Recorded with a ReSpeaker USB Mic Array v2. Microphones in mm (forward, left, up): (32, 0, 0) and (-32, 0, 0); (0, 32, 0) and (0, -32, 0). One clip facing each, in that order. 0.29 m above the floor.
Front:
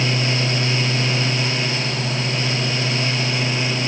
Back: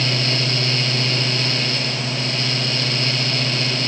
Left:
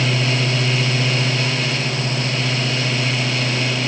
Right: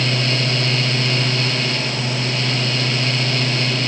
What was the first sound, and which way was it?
Only background noise.